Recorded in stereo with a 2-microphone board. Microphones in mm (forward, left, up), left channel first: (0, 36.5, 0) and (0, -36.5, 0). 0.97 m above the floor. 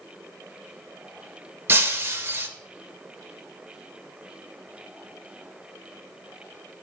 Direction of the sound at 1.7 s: 30° right (ahead or behind).